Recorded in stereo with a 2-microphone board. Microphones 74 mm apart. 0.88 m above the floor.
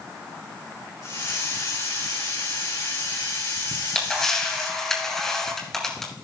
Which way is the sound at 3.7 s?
5° left (ahead or behind).